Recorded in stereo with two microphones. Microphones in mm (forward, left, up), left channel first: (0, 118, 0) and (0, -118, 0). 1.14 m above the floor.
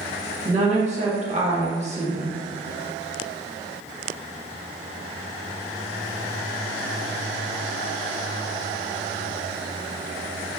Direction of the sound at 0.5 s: 30° right (ahead or behind).